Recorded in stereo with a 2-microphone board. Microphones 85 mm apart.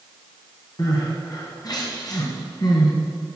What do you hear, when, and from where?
0.8 s crying: 50° left (ahead or behind), 2 m